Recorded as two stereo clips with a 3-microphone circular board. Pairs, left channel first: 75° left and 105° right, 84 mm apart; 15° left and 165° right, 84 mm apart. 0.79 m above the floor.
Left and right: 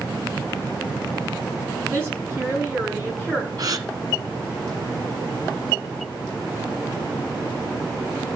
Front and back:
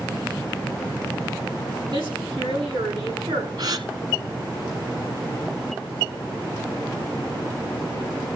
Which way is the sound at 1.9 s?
165° right.